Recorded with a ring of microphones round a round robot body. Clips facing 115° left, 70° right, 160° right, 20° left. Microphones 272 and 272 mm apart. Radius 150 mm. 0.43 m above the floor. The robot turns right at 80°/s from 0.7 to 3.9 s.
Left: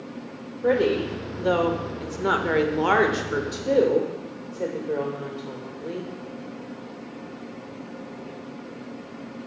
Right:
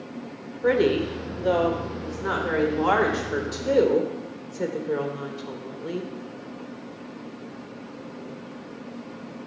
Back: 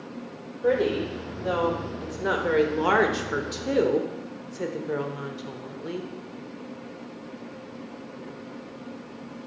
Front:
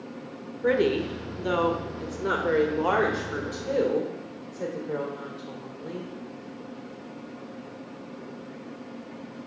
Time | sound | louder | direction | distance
0.6 | a woman speaking | right 1 dB, even | 25° right | 1.3 m